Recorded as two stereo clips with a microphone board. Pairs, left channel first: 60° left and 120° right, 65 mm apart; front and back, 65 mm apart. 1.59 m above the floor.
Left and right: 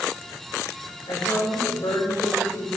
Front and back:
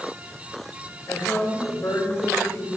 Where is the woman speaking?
45° left, 4.5 m.